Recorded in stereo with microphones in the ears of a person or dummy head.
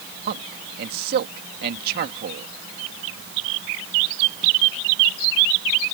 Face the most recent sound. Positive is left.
turn(degrees=-55)  # may be behind; listen again after turning